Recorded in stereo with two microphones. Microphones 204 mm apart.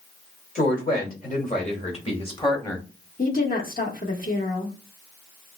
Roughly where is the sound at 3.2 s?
Left.